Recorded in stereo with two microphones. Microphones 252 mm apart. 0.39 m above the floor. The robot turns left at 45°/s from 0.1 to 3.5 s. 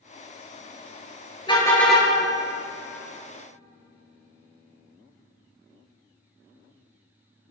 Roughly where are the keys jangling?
I don't hear keys jangling.